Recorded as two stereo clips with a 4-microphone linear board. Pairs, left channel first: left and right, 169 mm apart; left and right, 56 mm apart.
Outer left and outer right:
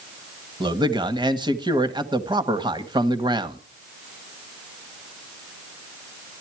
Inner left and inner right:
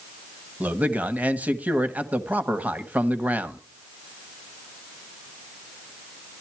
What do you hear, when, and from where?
0.6 s a man speaking: 25° right (ahead or behind), 1.3 m